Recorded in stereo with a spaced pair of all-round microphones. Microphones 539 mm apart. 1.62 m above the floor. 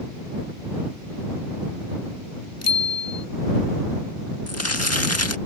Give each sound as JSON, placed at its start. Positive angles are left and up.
{"t": 2.6, "sound": "a bicycle bell", "side_deg": 25}
{"t": 4.5, "sound": "crumpling", "side_deg": 25}